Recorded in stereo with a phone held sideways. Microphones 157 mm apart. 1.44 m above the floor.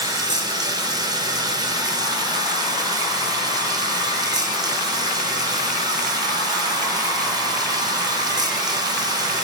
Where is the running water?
25° right (ahead or behind), 1.0 m.